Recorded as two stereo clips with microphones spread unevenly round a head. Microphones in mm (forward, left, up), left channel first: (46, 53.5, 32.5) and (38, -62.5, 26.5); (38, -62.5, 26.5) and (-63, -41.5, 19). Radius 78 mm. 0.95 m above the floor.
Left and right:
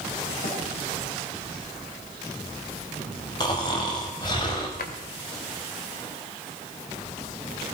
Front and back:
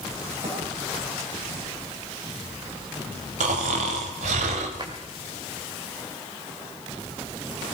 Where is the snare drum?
120° left, 5.5 m.